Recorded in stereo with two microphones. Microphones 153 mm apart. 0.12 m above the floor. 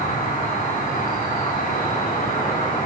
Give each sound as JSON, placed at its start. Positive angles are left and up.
{"t": 0.0, "sound": "an insect", "side_deg": 60, "distance_m": 3.5}